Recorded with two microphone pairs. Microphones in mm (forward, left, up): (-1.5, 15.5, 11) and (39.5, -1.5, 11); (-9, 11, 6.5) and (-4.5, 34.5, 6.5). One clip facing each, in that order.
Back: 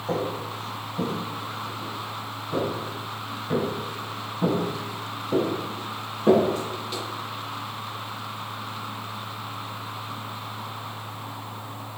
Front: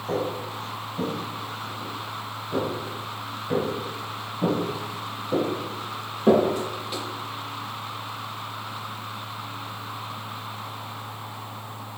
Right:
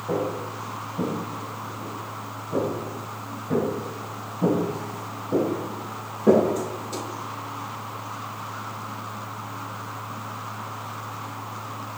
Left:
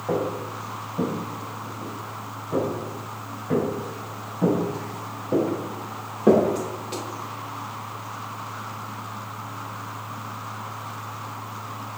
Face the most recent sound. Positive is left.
turn(degrees=60)